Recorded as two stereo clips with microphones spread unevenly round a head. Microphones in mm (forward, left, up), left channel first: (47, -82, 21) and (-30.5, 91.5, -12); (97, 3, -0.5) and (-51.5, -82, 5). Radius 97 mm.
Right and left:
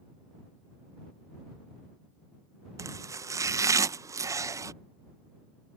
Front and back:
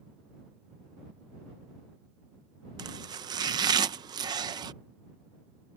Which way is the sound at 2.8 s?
160° left.